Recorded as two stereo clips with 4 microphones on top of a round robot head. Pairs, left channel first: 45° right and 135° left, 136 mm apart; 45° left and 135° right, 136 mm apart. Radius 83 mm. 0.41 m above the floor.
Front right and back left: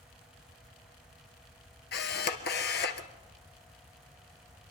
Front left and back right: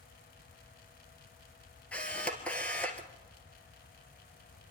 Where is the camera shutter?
40° right, 1.7 m.